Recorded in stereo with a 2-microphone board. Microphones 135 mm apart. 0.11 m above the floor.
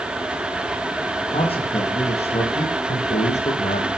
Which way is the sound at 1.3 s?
45° left (ahead or behind).